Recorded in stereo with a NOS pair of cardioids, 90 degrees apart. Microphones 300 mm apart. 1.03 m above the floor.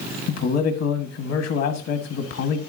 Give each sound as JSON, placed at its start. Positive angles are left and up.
{"t": 0.3, "sound": "a man speaking", "azimuth_deg": 55, "distance_m": 1.4}